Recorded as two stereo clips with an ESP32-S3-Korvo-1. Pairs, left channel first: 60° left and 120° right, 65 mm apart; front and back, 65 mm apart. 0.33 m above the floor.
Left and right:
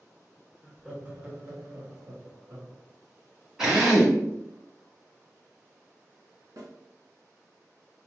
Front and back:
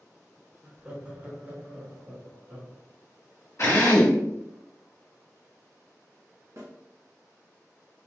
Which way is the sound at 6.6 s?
145° right.